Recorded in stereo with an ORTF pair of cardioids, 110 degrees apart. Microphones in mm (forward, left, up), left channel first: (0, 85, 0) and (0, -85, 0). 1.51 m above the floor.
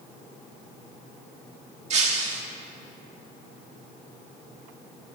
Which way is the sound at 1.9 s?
45° right.